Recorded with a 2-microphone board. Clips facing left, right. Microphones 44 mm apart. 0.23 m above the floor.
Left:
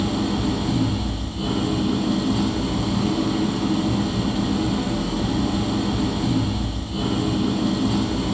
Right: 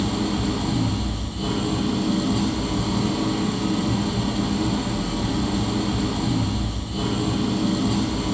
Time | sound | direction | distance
0.0 | an engine running | 5° left (ahead or behind) | 4.5 m